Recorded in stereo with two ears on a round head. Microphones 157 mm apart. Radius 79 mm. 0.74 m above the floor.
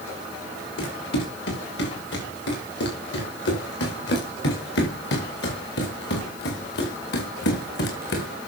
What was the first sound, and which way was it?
Running footsteps, 70° left (ahead or behind).